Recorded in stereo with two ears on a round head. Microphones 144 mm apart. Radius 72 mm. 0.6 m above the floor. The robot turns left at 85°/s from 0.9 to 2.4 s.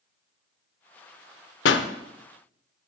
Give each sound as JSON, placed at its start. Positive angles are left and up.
{"t": 1.6, "sound": "a pop", "side_deg": 80, "distance_m": 0.5}